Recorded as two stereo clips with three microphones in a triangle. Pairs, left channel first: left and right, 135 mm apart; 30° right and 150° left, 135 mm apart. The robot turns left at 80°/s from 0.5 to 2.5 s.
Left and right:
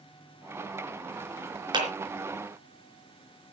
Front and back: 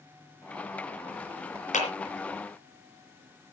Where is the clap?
35° right, 4 m; by 1.9 s 45° right, 4 m.